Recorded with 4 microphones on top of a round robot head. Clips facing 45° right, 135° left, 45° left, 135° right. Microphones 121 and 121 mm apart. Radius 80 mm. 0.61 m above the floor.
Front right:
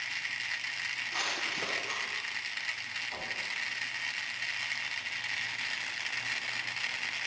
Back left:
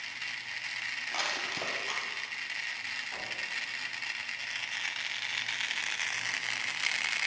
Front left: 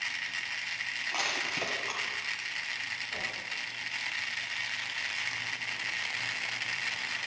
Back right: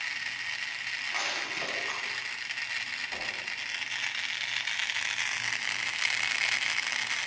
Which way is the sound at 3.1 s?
115° right.